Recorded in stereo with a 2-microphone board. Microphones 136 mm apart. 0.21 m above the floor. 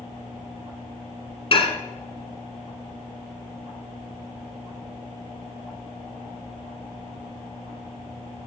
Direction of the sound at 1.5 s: 45° left (ahead or behind).